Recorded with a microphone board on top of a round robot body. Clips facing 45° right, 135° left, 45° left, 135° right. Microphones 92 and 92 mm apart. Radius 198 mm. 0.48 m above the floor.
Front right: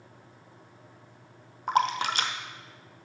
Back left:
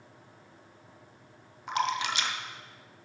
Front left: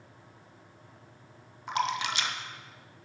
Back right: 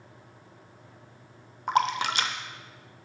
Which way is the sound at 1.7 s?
90° right.